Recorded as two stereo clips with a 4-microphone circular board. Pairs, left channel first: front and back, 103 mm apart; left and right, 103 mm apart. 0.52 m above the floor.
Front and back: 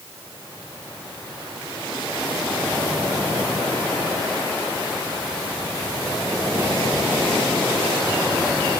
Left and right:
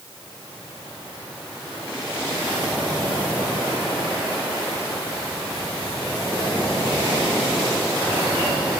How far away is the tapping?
I don't hear tapping.